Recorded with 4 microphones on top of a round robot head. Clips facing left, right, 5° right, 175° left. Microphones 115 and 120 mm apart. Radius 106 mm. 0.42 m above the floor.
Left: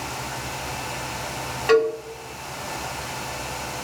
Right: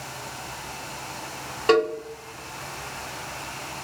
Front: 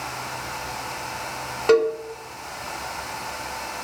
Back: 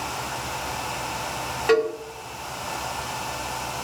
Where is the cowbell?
50° right, 1.8 m.